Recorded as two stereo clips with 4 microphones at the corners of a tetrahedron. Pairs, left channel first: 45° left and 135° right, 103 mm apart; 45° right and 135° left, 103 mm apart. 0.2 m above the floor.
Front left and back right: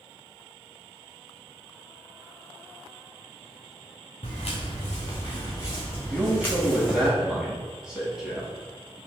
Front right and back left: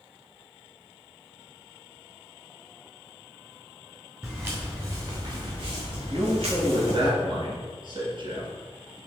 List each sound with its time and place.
4.2 s footsteps: 60° left, 1.6 m; by 7.1 s 130° left, 1.9 m
6.1 s a man speaking: 145° left, 1.6 m